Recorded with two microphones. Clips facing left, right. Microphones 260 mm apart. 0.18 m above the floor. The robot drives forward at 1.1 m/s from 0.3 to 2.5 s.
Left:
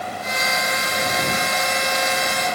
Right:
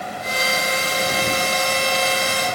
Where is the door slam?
I don't hear a door slam.